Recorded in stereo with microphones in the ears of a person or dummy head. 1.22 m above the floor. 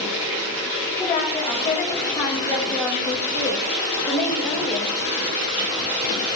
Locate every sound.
1.0 s a woman speaking: 20° left (ahead or behind), 5.5 m